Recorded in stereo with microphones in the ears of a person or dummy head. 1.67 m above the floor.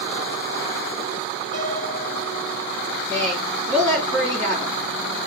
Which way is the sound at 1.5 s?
25° right (ahead or behind).